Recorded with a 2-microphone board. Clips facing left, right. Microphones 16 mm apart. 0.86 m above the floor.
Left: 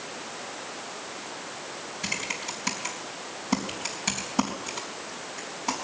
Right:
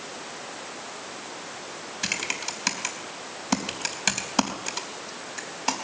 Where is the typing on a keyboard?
45° right (ahead or behind), 3.5 m.